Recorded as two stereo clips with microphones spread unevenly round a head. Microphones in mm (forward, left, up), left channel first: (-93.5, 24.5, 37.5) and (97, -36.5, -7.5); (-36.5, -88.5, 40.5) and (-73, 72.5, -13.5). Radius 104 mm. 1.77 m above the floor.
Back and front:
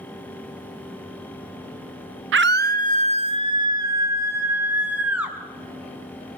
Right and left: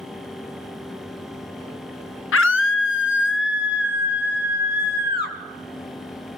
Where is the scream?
50° right, 1.4 m; by 5.4 s 100° right, 4.5 m.